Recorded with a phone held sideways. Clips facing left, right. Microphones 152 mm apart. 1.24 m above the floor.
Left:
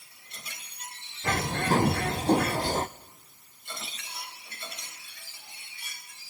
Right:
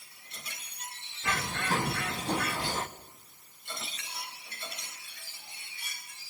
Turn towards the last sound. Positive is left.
turn(degrees=45)  # may be behind; listen again after turning